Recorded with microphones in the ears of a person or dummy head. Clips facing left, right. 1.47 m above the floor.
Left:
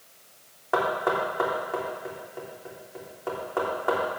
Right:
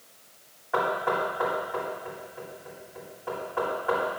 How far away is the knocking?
About 3.5 m.